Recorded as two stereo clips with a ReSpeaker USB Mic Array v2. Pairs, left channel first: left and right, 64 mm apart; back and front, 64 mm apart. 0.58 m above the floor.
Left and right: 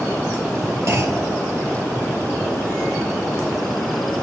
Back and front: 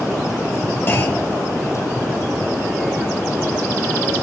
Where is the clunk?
125° right, 0.5 m.